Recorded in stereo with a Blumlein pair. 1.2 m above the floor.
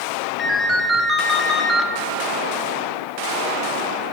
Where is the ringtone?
10° left, 0.8 m.